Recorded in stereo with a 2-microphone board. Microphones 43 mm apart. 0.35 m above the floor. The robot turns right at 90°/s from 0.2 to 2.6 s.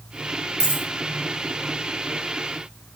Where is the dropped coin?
10° right (ahead or behind), 3 m; by 0.8 s 35° right (ahead or behind), 3 m.